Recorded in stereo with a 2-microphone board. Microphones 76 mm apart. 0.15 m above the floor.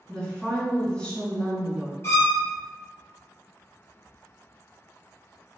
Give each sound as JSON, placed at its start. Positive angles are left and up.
{"t": 0.1, "sound": "a woman speaking", "side_deg": 15, "distance_m": 1.3}
{"t": 2.0, "sound": "a violin", "side_deg": 35, "distance_m": 1.8}